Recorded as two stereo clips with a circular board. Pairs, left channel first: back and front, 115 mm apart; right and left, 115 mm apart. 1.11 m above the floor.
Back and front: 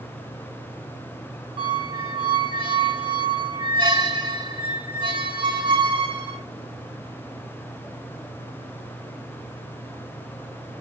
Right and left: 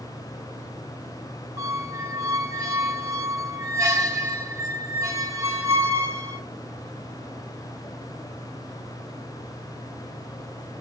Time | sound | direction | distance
1.6 | a squeak | 35° left | 0.8 m